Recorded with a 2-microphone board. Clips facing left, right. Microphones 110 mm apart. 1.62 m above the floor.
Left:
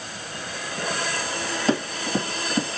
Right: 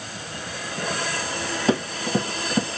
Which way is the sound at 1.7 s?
10° right (ahead or behind).